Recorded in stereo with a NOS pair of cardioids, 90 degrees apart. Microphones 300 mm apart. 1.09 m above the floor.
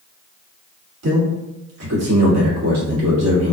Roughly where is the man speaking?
Ahead right.